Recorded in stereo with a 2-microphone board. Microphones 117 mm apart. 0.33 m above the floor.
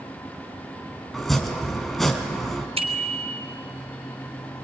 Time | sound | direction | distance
1.1 | chopping | centre (ahead or behind) | 2 m
2.8 | a bicycle bell | 60° right (ahead or behind) | 2.5 m